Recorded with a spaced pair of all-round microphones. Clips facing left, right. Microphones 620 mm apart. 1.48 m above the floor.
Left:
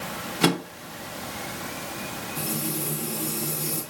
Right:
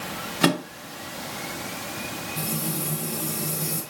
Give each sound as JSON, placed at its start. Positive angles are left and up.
{"t": 0.4, "sound": "a microwave", "side_deg": -5, "distance_m": 0.9}
{"t": 2.4, "sound": "frying", "side_deg": -75, "distance_m": 4.0}